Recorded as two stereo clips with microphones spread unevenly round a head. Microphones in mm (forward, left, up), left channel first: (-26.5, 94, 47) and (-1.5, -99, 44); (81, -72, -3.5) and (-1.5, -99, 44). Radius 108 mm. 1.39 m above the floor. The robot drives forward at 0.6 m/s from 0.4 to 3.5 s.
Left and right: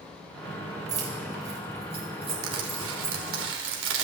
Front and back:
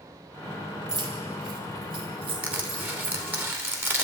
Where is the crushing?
95° right, 3 m; by 4.0 s 105° right, 3 m.